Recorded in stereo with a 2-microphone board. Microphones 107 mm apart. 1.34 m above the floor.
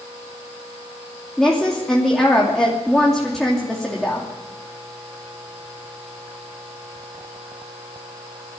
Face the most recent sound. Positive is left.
turn(degrees=5)  # may be behind; listen again after turning